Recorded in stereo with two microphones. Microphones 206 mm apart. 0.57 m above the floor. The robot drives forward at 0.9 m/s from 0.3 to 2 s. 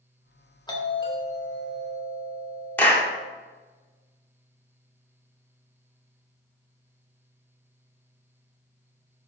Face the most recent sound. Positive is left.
turn(degrees=10)  # may be behind; listen again after turning